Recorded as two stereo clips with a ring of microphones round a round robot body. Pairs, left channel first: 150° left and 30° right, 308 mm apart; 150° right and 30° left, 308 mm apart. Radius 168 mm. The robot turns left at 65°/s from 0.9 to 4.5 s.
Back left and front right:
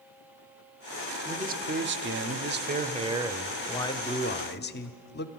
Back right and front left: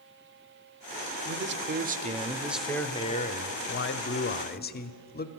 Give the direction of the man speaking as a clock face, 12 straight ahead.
11 o'clock.